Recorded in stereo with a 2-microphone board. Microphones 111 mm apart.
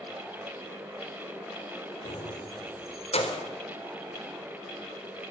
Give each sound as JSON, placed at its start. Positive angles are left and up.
{"t": 2.0, "sound": "keys jangling", "side_deg": 60, "distance_m": 3.0}